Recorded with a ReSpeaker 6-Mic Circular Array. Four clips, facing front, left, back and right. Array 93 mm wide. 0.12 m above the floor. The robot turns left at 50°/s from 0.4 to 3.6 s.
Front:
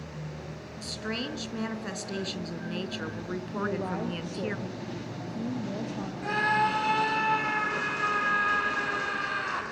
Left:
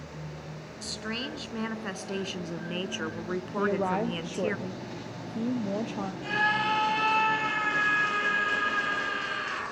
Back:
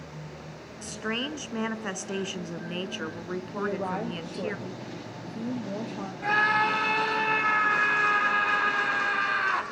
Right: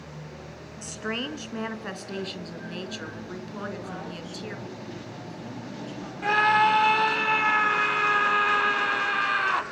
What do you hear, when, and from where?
0.8 s a woman speaking: 130° right, 1.4 m; by 4.6 s 90° left, 1.4 m
3.6 s a woman speaking: 105° left, 2.5 m; by 6.1 s 100° left, 2.5 m
6.2 s a scream: 105° right, 4.5 m